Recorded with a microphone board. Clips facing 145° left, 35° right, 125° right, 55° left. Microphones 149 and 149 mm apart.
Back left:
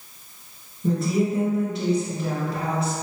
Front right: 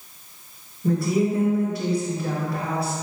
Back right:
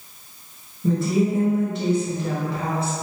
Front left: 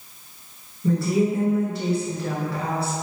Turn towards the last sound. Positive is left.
turn(degrees=-170)